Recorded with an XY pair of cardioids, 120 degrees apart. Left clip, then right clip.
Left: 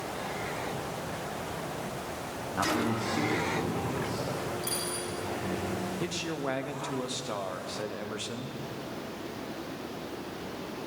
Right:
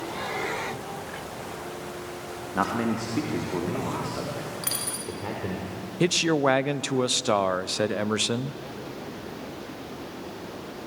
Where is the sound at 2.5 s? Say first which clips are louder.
Right 3 dB; 40° right, 2 m; by 5.6 s 55° right, 5 m.